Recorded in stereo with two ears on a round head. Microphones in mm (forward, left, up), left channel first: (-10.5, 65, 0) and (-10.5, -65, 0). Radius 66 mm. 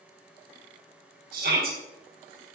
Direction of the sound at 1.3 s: 70° right (ahead or behind).